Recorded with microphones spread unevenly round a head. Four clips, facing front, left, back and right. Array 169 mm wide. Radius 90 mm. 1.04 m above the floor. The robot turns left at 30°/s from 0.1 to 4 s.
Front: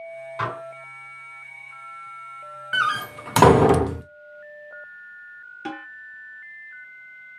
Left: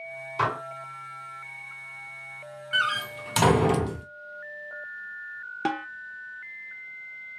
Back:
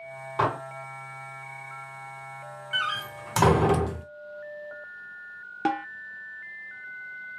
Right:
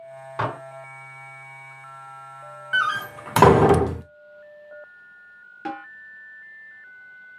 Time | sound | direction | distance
0.4 | dishes clattering | 135° right | 2 m
2.7 | a door slam | 20° right | 0.5 m
5.7 | a snare drum | 145° left | 0.8 m